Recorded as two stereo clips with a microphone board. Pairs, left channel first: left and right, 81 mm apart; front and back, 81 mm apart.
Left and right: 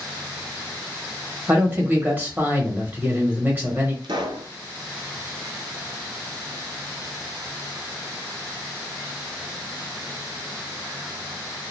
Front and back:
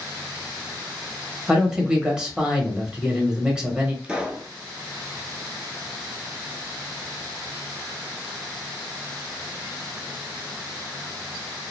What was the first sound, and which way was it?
A man speaking, 115° right.